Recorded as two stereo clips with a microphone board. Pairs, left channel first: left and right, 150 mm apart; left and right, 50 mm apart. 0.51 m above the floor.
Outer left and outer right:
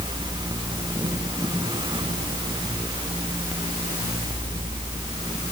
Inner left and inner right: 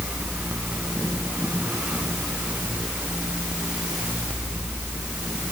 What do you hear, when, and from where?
Only background noise.